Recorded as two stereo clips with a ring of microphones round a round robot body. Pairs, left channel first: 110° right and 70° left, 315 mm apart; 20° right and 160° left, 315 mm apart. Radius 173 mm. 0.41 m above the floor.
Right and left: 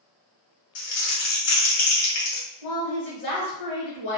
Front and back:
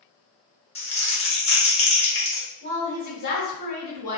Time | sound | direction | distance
0.8 | crumpling | 90° right | 1.0 m
2.6 | a woman speaking | 40° right | 1.6 m